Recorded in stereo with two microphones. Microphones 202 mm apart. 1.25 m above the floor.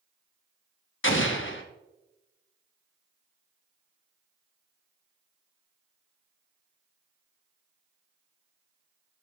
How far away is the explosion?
About 1.2 m.